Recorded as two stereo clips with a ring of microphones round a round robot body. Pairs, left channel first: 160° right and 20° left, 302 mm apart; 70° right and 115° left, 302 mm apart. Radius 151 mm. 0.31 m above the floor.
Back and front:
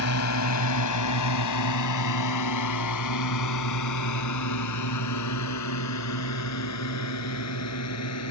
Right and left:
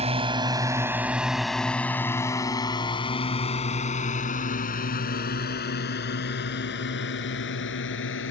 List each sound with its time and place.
0.0 s a drone: straight behind; by 8.3 s 120° right